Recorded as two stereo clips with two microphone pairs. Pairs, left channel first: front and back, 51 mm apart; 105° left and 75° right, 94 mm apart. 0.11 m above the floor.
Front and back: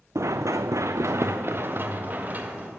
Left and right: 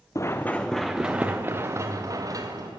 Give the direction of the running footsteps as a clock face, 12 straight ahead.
7 o'clock.